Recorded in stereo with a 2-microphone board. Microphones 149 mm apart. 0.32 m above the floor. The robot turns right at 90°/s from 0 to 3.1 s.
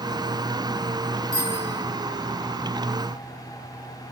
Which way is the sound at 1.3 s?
65° right.